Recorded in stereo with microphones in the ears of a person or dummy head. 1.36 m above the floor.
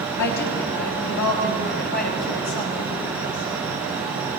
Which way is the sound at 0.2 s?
70° left (ahead or behind).